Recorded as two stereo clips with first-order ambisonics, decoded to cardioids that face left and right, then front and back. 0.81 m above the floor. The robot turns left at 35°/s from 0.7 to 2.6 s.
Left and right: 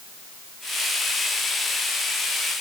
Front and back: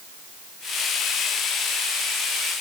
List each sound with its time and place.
Only background noise.